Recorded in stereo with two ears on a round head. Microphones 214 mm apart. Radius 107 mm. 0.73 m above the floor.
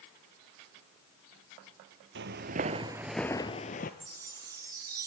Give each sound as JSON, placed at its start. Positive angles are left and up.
{"t": 2.1, "sound": "footsteps", "side_deg": -50, "distance_m": 1.0}
{"t": 4.0, "sound": "a chime", "side_deg": -15, "distance_m": 1.3}